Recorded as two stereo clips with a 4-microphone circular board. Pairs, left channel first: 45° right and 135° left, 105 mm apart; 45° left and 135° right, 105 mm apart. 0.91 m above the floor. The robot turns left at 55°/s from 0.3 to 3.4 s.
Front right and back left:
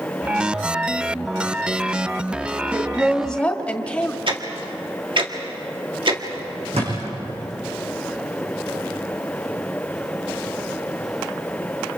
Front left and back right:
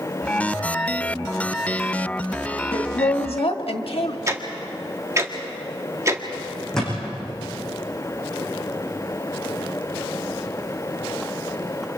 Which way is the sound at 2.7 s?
70° left.